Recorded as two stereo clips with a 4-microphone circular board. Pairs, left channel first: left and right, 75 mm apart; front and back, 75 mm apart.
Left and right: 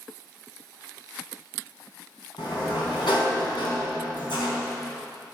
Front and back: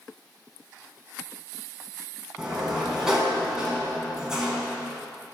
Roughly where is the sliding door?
Left.